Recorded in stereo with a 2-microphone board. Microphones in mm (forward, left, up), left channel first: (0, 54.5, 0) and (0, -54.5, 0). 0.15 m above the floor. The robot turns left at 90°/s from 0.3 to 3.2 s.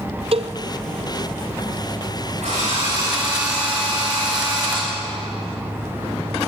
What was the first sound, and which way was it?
A cowbell, 60° right (ahead or behind).